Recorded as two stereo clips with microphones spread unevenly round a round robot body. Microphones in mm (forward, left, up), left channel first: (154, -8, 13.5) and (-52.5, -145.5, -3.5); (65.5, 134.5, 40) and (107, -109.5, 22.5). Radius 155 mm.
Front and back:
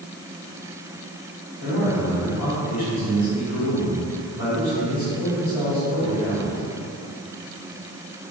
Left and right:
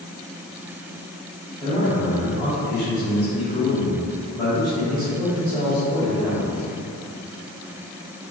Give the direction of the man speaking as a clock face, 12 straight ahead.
11 o'clock.